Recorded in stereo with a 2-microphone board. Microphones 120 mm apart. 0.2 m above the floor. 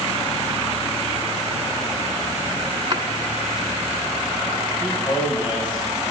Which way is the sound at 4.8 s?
40° left (ahead or behind).